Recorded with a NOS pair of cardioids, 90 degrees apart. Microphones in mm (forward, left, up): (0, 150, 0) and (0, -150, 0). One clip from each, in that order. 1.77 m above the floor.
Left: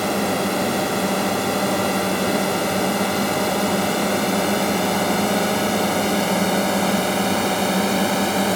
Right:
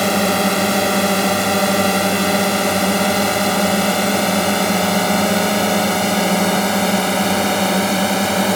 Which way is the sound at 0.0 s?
55° right.